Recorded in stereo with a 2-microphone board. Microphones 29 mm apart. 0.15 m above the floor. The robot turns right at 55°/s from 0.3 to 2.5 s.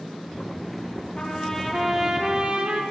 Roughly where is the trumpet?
Behind left.